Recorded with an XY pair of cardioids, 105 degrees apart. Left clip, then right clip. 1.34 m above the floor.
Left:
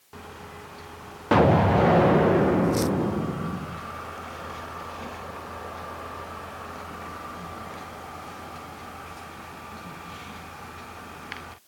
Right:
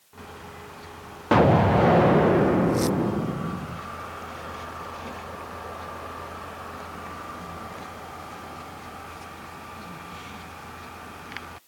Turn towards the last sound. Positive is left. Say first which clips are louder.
# right 1 dB
turn(degrees=-5)